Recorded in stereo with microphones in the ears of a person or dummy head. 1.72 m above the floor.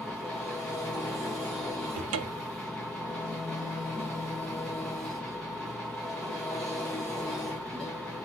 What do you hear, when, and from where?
0.0 s an engine running: 5° left (ahead or behind), 1.4 m
1.9 s a cupboard door: 85° right, 0.8 m